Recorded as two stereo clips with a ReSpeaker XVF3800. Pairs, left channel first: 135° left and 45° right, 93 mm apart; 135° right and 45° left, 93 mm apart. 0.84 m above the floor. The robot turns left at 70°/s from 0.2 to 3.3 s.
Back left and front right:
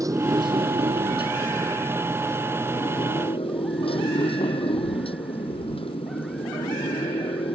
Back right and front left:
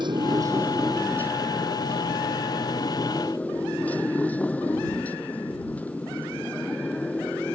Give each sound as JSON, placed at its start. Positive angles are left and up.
{"t": 0.0, "sound": "a motorcycle", "azimuth_deg": 10}